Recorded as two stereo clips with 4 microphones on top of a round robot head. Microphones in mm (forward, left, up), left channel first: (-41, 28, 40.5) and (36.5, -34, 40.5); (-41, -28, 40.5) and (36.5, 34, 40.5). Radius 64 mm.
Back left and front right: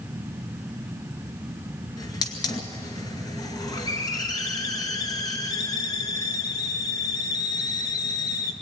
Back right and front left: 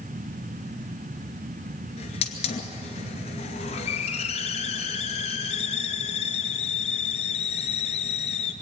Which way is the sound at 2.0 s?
165° right.